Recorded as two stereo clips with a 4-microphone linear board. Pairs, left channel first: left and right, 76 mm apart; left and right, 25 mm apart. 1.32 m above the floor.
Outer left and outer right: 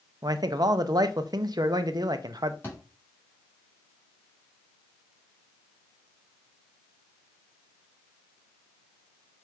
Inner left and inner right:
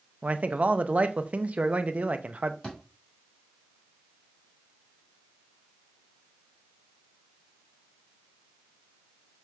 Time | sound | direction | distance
0.2 | a man speaking | 60° right (ahead or behind) | 0.5 m
2.6 | a thud | 30° left (ahead or behind) | 3 m